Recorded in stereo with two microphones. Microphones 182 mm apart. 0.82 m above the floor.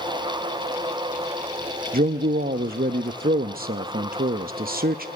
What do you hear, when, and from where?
1.9 s a man speaking: 55° right (ahead or behind), 0.7 m